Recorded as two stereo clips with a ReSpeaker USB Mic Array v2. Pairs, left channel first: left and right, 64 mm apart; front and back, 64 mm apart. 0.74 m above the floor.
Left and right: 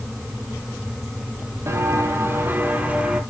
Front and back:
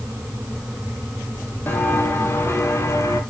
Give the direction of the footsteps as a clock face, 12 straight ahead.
2 o'clock.